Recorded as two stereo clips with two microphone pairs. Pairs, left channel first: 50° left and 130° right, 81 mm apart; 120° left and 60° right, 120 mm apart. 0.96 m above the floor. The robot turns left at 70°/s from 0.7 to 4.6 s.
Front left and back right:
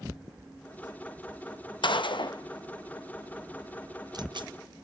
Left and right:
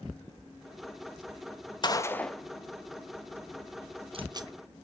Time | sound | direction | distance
1.8 | a gunshot | 65° left | 0.6 m